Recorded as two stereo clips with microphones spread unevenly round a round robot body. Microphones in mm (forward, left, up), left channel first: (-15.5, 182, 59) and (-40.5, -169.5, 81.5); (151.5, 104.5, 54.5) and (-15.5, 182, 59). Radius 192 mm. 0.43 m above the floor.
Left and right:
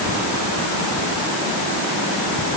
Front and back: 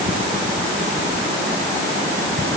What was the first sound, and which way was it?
Only background noise.